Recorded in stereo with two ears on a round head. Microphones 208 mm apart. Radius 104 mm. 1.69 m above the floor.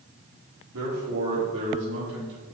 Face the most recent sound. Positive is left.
turn(degrees=-50)  # may be behind; listen again after turning